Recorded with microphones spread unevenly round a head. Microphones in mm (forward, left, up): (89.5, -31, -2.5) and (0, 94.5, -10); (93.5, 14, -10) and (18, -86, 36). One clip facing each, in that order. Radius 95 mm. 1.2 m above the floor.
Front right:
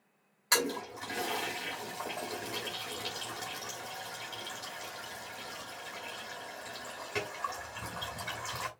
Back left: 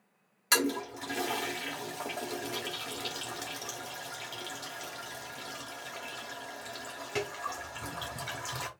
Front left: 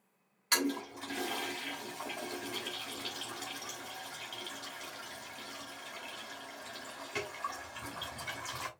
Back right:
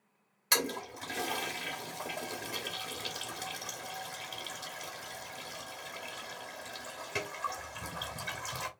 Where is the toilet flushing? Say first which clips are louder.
Back left 3 dB, front left 1 dB; 165° right, 1.1 m.